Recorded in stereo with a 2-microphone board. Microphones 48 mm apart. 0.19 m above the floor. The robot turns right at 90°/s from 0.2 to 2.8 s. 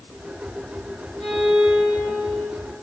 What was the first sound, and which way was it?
A violin, 160° left.